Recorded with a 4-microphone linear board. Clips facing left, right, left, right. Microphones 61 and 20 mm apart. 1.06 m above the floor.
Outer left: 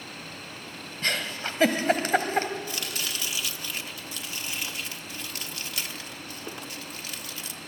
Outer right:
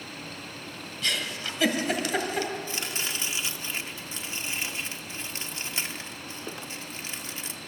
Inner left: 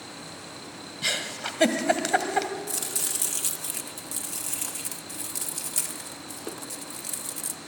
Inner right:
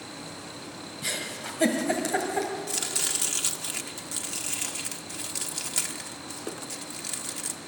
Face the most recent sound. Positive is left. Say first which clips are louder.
# outer right 1 dB, inner right 2 dB
turn(degrees=-25)  # may be behind; listen again after turning